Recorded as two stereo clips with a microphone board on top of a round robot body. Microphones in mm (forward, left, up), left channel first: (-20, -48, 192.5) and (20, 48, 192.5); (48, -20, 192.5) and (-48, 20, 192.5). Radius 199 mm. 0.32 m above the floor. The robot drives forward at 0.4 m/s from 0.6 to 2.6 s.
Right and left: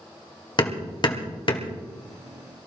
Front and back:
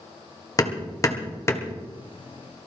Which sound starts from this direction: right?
Hammering, at 0.6 s.